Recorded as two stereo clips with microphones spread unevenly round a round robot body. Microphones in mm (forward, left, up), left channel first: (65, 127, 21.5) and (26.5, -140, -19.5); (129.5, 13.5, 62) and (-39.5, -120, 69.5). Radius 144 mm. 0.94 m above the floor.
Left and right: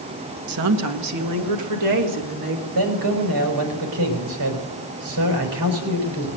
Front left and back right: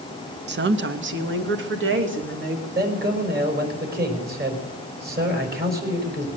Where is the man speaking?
100° right, 4.5 m.